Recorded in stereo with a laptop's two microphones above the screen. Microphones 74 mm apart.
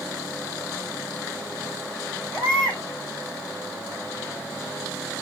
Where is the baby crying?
15° left (ahead or behind), 4.5 m.